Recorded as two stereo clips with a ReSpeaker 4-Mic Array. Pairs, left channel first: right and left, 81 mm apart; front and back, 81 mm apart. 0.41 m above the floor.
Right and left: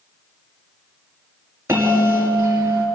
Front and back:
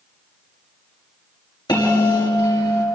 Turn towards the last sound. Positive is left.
turn(degrees=30)